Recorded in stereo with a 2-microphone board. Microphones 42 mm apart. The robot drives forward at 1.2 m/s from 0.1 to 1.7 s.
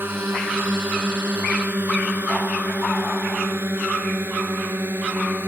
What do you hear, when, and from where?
0.0 s a drone: 55° right (ahead or behind); by 5.5 s 60° right (ahead or behind)